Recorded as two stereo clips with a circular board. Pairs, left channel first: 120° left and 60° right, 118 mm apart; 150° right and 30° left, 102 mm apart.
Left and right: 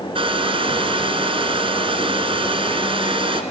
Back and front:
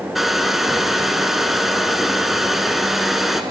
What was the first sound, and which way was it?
A hair dryer, 60° right.